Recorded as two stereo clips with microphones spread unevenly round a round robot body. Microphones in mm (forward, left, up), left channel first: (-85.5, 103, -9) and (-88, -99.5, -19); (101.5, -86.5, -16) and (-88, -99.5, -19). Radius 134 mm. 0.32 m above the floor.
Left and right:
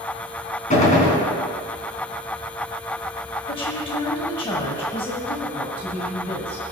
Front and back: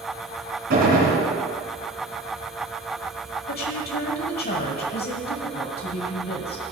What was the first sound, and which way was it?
A gunshot, 140° left.